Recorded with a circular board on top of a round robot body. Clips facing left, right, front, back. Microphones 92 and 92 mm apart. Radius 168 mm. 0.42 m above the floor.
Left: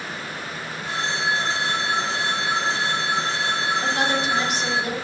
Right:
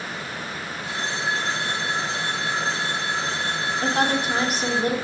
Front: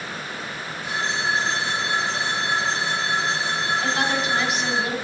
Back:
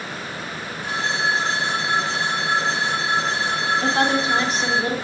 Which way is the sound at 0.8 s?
140° left.